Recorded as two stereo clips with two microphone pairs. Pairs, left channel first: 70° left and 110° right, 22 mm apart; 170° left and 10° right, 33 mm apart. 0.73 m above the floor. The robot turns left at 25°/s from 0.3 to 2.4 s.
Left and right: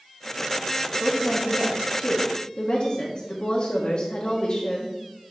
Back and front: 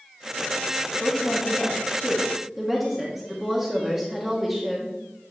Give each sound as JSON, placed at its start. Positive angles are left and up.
{"t": 1.0, "sound": "a woman speaking", "azimuth_deg": 110, "distance_m": 1.2}